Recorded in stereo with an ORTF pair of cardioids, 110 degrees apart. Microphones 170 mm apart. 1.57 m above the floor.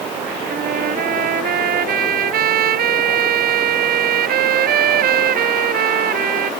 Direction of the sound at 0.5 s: 60° right.